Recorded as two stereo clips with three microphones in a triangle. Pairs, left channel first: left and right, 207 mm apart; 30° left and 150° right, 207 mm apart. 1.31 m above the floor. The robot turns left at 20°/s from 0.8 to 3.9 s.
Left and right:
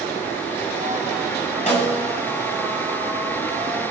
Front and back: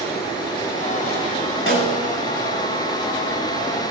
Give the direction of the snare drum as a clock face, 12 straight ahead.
11 o'clock.